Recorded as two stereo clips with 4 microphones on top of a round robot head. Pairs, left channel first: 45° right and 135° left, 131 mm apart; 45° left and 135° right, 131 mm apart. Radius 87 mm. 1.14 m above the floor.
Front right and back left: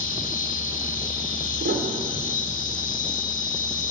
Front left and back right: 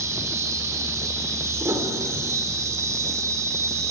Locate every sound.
0.0 s an insect: 70° right, 3.5 m
1.6 s a piano: 150° left, 4.5 m